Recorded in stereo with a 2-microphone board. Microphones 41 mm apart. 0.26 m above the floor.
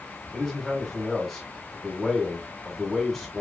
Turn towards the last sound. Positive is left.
turn(degrees=0)  # may be behind; listen again after turning